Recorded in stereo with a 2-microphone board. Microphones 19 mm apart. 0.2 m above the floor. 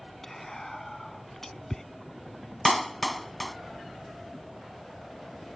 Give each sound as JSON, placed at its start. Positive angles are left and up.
{"t": 0.2, "sound": "whispering", "side_deg": 20}
{"t": 2.6, "sound": "a clap", "side_deg": 5}